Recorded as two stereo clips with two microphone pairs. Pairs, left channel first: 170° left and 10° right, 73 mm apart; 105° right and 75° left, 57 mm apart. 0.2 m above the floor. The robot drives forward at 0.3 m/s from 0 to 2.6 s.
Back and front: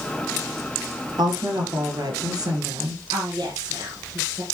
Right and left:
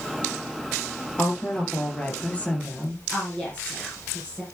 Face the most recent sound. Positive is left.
turn(degrees=-30)